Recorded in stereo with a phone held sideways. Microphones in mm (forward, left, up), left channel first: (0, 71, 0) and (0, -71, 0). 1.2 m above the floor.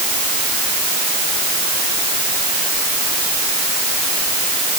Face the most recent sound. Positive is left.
No sound to turn to.